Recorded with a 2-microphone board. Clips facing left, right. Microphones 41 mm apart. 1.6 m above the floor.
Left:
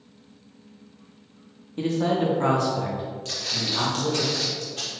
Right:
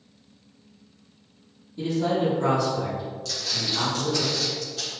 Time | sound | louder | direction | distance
1.8 | a man speaking | left 1 dB | 60° left (ahead or behind) | 1.0 m
3.2 | footsteps | even | 40° left (ahead or behind) | 2.0 m